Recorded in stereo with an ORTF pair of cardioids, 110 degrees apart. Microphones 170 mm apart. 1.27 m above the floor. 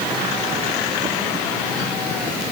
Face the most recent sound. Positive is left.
No sound to turn to.